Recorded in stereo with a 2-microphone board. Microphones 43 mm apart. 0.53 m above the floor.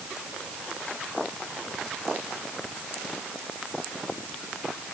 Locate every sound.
Only background noise.